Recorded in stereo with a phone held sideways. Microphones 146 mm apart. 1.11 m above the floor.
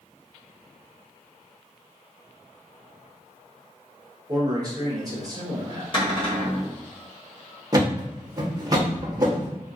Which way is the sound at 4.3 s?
30° right (ahead or behind).